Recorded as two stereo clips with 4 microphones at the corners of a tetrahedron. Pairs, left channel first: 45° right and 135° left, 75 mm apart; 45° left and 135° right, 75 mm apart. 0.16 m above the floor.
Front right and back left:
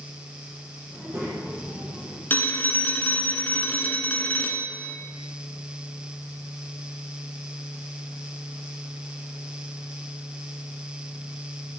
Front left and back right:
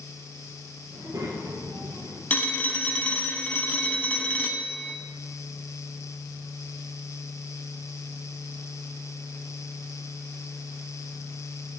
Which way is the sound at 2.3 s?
5° right.